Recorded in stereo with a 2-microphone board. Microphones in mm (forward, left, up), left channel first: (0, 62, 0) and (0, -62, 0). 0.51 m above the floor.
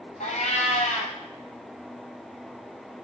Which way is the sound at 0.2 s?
75° left (ahead or behind).